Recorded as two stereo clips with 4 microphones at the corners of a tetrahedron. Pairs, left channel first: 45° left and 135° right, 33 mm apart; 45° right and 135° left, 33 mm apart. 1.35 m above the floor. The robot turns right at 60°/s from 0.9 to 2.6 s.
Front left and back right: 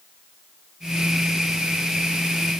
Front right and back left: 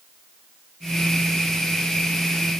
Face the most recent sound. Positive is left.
No sound to turn to.